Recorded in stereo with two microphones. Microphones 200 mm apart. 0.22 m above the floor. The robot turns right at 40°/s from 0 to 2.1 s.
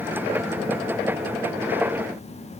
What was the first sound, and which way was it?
Only background noise.